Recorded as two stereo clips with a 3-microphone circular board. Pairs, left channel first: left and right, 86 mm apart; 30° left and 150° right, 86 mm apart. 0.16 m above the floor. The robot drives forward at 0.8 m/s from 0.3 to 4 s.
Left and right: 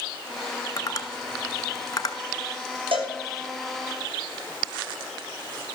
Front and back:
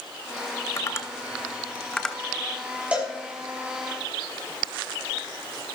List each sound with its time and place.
0.8 s tapping: 60° left, 1.9 m; by 2.2 s 110° left, 1.9 m
2.9 s a cowbell: 75° right, 7.5 m